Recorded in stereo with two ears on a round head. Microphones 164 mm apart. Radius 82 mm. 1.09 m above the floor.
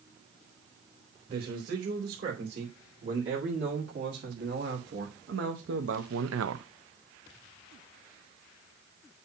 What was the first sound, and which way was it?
A man speaking, 55° right (ahead or behind).